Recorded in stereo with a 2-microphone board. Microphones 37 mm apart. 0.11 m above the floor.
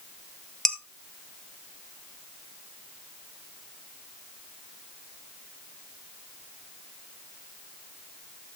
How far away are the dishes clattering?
About 1.3 m.